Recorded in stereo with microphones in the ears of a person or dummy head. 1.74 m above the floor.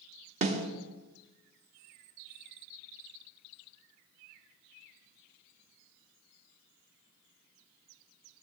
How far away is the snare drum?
About 1.0 m.